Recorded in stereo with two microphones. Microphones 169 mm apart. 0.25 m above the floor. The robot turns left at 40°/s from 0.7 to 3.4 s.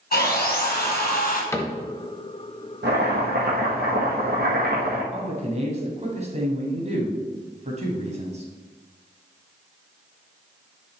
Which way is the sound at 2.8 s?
90° right.